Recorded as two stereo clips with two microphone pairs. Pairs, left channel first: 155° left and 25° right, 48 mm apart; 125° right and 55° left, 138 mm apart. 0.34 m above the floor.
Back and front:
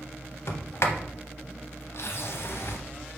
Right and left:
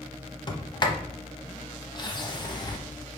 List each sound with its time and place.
0.5 s a sliding door: straight behind, 0.6 m